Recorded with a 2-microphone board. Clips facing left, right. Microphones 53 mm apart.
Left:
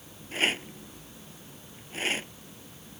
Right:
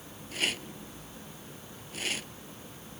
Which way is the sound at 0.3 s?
35° left (ahead or behind).